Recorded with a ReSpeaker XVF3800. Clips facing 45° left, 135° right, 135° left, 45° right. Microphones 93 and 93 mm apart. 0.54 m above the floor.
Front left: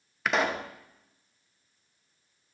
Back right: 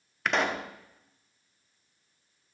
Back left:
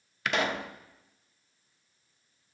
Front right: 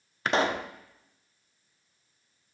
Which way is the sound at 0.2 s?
40° right.